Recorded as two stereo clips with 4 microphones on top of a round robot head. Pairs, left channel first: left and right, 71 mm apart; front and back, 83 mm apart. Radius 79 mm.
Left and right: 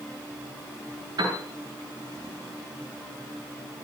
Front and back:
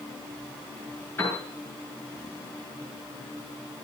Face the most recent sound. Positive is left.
turn(degrees=-70)